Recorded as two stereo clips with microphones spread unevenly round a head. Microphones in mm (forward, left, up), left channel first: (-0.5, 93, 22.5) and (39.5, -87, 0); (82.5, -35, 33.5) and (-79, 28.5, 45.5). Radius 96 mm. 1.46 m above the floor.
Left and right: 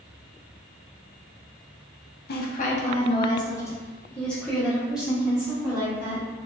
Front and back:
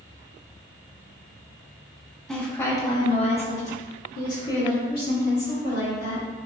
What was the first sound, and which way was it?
A woman speaking, 65° left.